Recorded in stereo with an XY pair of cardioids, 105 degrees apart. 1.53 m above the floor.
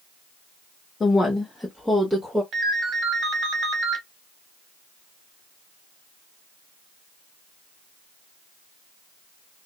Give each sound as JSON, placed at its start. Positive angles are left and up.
{"t": 1.0, "sound": "a woman speaking", "azimuth_deg": 35, "distance_m": 0.8}
{"t": 2.5, "sound": "a ringtone", "azimuth_deg": -65, "distance_m": 1.2}